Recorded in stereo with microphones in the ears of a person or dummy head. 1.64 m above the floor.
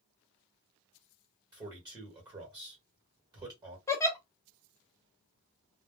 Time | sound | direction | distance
1.5 | a man speaking | 20° right (ahead or behind) | 1.3 m
3.9 | a giggle | 15° left (ahead or behind) | 0.9 m